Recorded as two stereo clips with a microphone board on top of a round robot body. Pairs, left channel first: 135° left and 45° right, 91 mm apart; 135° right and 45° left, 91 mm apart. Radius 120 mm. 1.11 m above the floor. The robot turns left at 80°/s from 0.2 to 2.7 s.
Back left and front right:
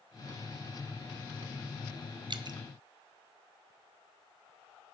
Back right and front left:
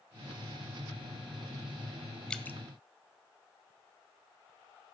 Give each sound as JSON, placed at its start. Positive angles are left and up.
{"t": 2.3, "sound": "dripping", "azimuth_deg": -55, "distance_m": 0.6}